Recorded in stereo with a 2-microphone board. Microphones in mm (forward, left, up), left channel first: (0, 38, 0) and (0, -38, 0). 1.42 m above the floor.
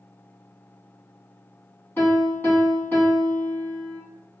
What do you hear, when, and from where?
2.0 s a piano: 30° left (ahead or behind), 1.1 m